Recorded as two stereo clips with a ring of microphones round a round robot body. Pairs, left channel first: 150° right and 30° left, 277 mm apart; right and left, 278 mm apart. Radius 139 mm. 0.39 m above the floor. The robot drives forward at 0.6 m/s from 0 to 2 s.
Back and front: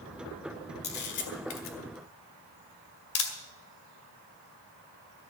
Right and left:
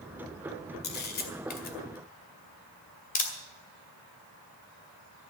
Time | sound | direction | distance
0.8 | a camera shutter | 120° right | 1.7 m